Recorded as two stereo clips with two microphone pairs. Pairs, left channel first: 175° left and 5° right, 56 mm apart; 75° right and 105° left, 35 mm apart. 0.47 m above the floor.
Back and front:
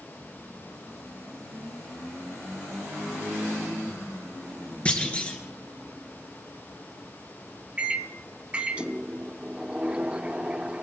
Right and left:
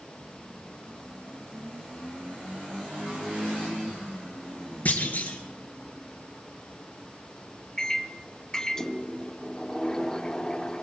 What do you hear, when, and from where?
4.8 s a clunk: 115° right, 1.9 m
7.8 s a microwave: 40° right, 0.6 m